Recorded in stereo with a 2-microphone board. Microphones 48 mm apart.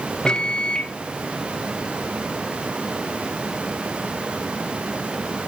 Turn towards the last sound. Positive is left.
turn(degrees=20)  # may be behind; listen again after turning